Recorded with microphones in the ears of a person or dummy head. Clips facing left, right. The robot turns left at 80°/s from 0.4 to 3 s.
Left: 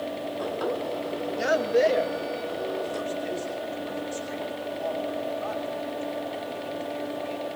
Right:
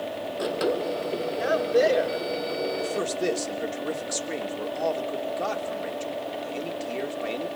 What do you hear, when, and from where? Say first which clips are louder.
1.4 s a man speaking: even; 35° left, 2.5 m; by 7.6 s 95° right, 2.5 m